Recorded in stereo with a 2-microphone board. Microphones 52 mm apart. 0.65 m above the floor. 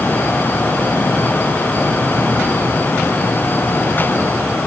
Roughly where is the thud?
I don't hear a thud.